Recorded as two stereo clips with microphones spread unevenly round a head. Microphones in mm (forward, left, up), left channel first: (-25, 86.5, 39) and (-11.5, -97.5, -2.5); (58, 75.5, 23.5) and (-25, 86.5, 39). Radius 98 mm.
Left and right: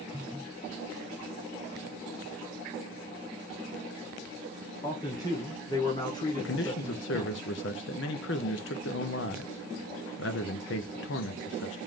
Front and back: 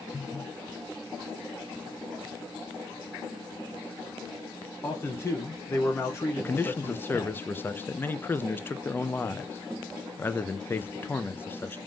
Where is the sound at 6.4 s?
60° left, 0.7 m.